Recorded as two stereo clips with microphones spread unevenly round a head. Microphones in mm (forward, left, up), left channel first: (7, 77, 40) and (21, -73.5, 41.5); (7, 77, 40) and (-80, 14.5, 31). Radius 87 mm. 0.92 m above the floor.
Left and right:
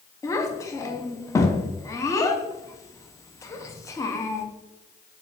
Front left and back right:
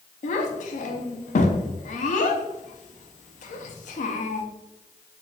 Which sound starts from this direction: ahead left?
A child speaking, at 0.2 s.